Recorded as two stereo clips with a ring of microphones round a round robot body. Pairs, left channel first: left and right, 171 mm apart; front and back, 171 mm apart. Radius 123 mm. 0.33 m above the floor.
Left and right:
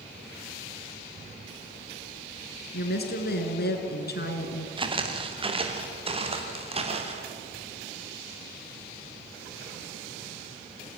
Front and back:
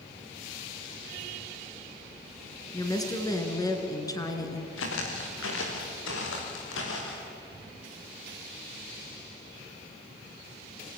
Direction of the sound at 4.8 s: 30° right.